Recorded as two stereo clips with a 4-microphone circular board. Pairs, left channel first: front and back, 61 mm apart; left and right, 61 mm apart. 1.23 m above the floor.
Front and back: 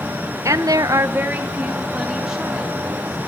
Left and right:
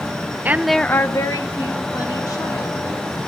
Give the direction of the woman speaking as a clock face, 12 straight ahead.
5 o'clock.